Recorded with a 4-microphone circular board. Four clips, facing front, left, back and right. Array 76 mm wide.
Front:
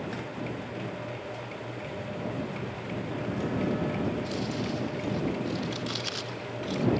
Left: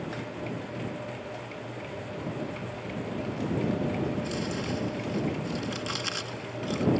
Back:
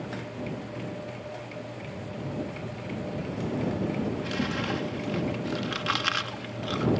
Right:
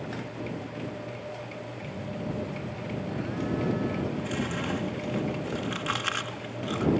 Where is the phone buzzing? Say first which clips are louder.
Right 2 dB, front 2 dB; 65° right.